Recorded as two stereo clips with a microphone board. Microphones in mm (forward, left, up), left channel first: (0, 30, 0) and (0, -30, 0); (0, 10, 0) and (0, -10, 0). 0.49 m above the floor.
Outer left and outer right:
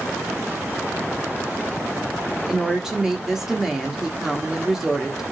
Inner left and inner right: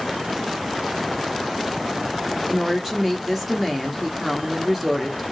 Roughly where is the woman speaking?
Centre.